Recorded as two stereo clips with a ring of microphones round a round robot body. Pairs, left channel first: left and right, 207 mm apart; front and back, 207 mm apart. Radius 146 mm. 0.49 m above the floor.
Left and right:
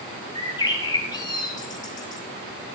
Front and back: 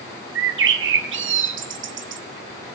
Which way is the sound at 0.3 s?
165° left.